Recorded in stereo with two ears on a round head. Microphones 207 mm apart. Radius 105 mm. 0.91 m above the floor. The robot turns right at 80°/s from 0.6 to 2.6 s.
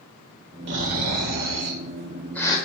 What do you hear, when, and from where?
0.7 s snoring: 130° right, 1.5 m; by 2.6 s 20° left, 1.5 m